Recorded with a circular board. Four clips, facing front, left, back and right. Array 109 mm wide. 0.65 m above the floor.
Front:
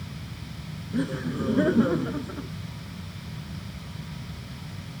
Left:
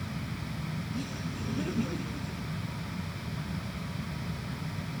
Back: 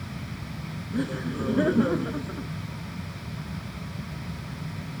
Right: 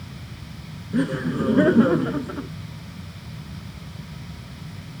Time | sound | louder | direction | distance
0.9 | laughter | right 14 dB, front 1 dB | 90° right | ?